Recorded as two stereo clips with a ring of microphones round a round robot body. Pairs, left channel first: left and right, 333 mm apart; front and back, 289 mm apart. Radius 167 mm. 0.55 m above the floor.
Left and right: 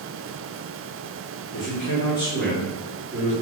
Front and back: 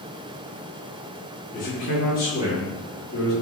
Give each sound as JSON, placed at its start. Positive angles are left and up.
{"t": 1.5, "sound": "a man speaking", "azimuth_deg": 50, "distance_m": 1.5}